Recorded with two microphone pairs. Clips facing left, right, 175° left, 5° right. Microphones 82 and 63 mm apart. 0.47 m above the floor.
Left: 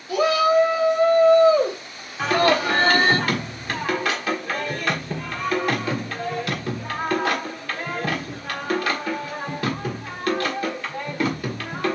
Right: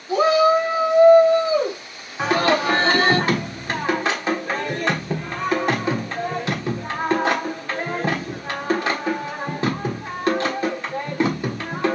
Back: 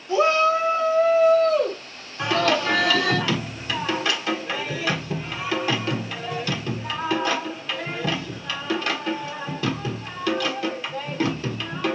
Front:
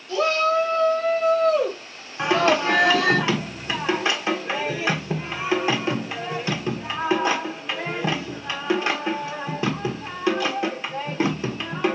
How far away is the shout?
About 1.7 m.